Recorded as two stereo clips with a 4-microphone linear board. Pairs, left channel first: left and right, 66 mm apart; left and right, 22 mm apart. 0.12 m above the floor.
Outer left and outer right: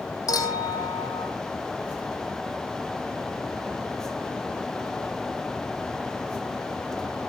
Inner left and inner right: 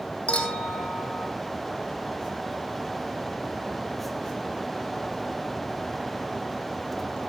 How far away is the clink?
About 3 m.